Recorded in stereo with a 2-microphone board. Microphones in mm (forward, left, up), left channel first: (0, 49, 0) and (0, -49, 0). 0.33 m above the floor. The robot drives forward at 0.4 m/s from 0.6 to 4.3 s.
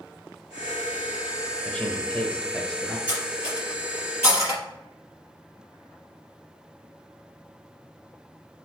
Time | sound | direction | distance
1.6 | a man speaking | 15° left (ahead or behind) | 1.0 m
3.1 | cutlery clinking | 15° right (ahead or behind) | 3.5 m